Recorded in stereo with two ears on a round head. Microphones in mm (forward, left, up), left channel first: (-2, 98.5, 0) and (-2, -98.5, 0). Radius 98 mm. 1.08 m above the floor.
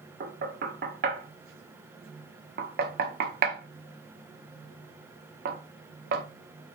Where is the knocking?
45° right (ahead or behind), 0.9 m.